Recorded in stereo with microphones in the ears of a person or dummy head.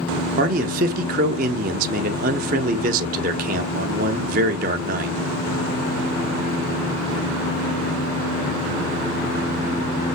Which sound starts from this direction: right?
A man speaking, at 0.4 s.